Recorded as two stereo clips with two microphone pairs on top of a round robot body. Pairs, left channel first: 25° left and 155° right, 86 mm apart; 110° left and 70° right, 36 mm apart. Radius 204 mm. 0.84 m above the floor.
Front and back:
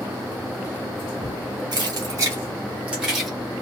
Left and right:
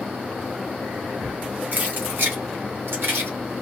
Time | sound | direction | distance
1.7 | keys jangling | 110° right | 1.1 m